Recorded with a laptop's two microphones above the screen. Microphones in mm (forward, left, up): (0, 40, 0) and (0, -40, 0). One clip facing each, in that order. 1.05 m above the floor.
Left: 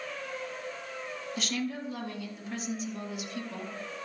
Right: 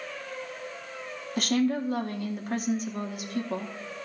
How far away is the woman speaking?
About 1.5 m.